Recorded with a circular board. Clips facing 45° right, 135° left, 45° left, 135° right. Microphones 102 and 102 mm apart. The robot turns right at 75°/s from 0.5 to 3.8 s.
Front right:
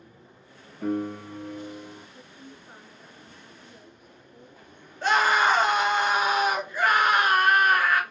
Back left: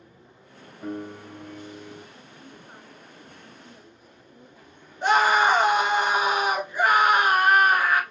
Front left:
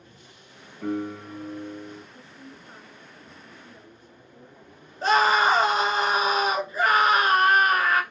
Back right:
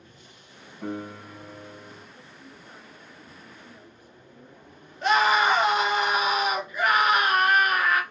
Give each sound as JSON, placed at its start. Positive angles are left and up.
{"t": 0.8, "sound": "a piano", "azimuth_deg": -55, "distance_m": 2.0}
{"t": 2.1, "sound": "a woman speaking", "azimuth_deg": 25, "distance_m": 1.3}
{"t": 5.0, "sound": "a scream", "azimuth_deg": 75, "distance_m": 1.4}